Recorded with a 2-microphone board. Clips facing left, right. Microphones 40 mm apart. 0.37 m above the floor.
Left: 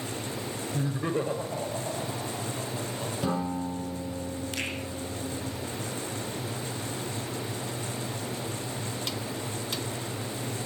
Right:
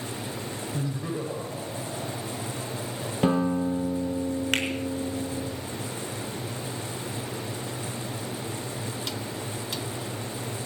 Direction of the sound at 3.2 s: 45° right (ahead or behind).